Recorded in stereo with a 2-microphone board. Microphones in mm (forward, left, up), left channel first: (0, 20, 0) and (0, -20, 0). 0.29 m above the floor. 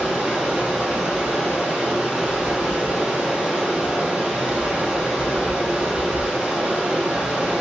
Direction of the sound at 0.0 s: 20° right (ahead or behind).